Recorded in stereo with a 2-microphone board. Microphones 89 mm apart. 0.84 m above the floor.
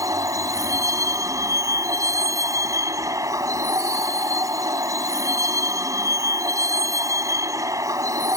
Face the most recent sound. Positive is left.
turn(degrees=-35)  # may be behind; listen again after turning